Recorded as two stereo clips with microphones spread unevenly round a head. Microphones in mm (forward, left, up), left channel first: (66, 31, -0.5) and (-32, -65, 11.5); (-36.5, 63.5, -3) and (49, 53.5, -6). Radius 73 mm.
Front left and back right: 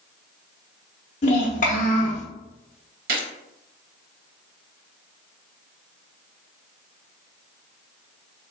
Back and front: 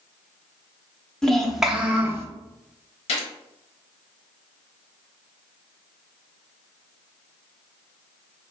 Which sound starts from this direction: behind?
A gunshot, at 3.1 s.